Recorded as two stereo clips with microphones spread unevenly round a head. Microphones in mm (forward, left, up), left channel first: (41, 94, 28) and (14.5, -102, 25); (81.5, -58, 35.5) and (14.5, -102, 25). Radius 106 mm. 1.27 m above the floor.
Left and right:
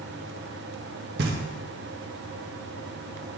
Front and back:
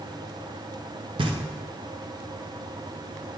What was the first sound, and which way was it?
Knocking, 145° right.